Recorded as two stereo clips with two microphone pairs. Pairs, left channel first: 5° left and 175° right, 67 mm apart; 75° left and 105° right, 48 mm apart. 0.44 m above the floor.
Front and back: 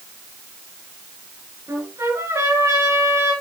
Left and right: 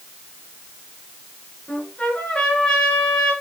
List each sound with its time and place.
1.7 s a trumpet: 145° left, 4.5 m